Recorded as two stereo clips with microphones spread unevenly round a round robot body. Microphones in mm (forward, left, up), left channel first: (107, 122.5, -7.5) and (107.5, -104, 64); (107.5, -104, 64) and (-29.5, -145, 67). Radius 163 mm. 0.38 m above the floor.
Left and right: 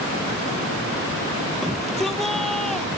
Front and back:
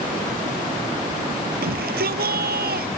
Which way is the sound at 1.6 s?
Straight behind.